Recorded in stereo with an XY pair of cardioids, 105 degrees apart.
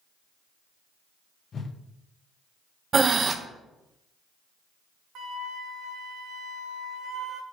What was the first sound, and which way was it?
A whoosh, 45° left.